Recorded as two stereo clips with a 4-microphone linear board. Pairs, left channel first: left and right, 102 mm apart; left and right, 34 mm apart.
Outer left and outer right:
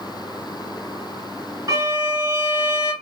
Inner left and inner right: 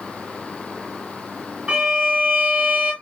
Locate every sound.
1.7 s a violin: 35° right (ahead or behind), 1.3 m